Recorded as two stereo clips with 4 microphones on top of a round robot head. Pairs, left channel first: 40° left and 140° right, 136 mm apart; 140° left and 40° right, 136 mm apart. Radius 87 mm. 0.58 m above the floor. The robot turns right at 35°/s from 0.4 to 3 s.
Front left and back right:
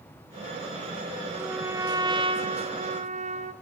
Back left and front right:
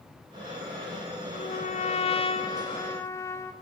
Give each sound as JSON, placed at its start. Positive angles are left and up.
{"t": 1.3, "sound": "a trumpet", "azimuth_deg": 145, "distance_m": 1.3}